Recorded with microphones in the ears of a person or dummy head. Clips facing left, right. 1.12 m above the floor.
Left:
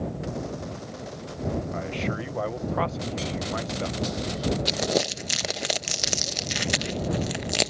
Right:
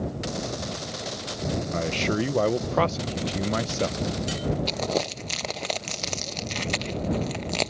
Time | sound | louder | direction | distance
1.7 | a man speaking | right 4 dB | 50° right (ahead or behind) | ?
4.7 | crumpling | left 1 dB | 10° left (ahead or behind) | ?